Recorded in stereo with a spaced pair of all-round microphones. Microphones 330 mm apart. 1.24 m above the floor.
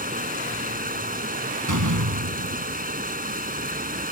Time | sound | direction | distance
0.0 | running water | 25° right (ahead or behind) | ?
1.7 | a door slam | 65° right (ahead or behind) | ?